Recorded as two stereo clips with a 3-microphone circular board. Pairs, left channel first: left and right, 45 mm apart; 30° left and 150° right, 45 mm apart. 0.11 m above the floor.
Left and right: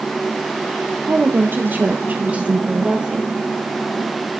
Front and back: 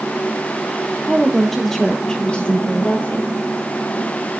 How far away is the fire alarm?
I don't hear a fire alarm.